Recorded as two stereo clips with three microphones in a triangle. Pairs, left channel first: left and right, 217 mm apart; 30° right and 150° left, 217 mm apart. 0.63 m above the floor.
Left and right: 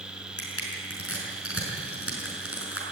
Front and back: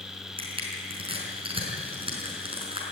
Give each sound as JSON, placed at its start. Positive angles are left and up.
{"t": 0.4, "sound": "crushing", "azimuth_deg": 85, "distance_m": 5.0}